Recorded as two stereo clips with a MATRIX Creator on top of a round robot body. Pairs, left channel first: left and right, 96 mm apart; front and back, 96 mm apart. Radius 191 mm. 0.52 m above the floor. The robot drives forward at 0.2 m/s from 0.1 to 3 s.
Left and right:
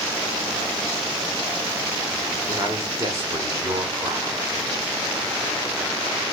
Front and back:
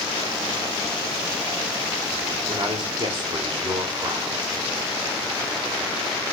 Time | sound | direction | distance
2.5 | a man speaking | 145° right | 2.5 m